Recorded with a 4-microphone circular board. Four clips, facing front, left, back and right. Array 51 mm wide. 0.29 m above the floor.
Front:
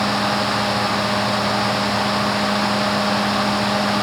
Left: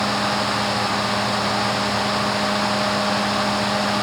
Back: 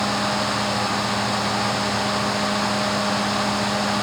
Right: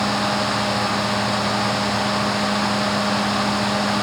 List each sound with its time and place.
Only background noise.